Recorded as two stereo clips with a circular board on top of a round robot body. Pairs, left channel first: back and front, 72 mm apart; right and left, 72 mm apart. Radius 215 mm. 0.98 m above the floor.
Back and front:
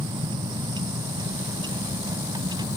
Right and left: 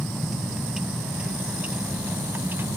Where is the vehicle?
Straight ahead; by 2.8 s 30° left.